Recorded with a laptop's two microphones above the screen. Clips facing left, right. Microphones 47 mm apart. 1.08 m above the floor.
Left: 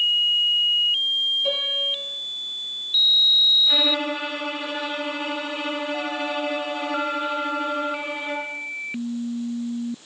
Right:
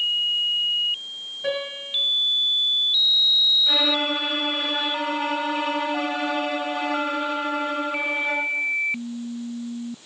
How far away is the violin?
About 4.5 m.